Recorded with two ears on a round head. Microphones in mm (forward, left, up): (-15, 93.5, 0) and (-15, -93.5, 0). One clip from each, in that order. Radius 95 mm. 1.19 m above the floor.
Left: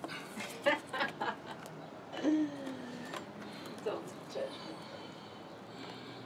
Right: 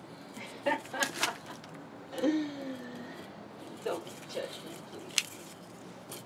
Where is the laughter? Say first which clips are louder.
Even; 30° left (ahead or behind), 1.4 m; by 5.1 s 60° right (ahead or behind), 1.9 m.